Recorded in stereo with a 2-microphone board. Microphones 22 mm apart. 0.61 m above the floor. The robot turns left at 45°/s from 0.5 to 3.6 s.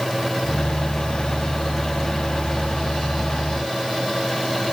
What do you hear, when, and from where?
Only background noise.